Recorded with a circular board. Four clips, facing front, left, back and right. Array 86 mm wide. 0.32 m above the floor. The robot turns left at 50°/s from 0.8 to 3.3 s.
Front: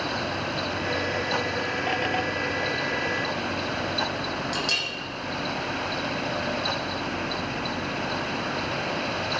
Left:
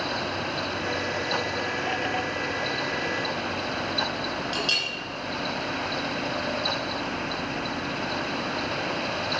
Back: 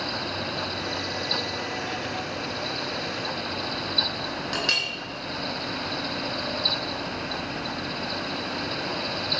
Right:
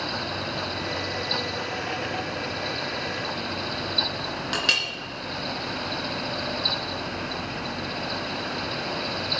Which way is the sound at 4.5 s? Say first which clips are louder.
Right 1 dB, even; 115° right.